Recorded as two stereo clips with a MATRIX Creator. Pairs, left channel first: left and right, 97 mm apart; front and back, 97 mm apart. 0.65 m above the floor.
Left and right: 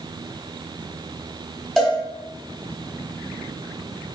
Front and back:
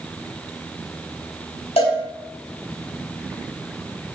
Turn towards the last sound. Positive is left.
turn(degrees=5)